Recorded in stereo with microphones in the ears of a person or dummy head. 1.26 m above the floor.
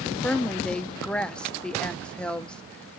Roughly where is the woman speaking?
Centre.